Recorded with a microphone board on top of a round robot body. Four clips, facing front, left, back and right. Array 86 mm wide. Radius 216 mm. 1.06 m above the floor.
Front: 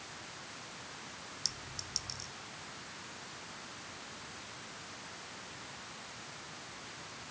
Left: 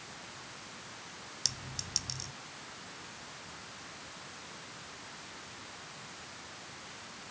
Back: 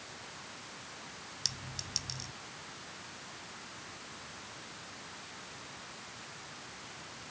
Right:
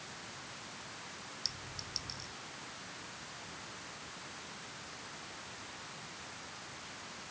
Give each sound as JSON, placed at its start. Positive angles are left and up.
{"t": 1.4, "sound": "a clink", "azimuth_deg": 135}